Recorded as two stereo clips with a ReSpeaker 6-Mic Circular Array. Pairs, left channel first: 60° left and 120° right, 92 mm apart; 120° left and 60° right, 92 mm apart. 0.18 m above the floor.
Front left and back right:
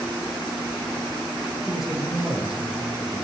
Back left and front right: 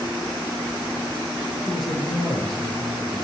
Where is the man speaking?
155° left, 4 m.